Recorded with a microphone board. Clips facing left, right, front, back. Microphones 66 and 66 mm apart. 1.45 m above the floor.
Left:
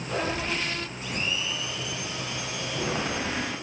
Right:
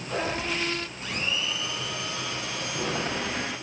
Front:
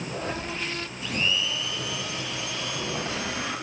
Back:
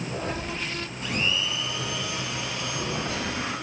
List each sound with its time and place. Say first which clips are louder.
1.0 s a blender: even, even; 140° right, 9.5 m